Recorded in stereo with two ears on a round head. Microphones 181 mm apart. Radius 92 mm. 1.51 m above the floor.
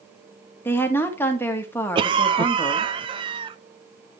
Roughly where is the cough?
Right.